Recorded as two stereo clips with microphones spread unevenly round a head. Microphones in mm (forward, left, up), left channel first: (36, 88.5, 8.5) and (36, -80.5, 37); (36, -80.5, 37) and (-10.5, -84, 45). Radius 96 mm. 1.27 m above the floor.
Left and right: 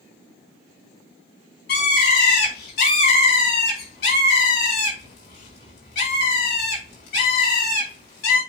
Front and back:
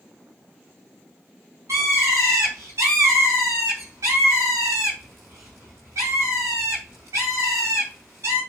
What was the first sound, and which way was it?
A bird, 135° left.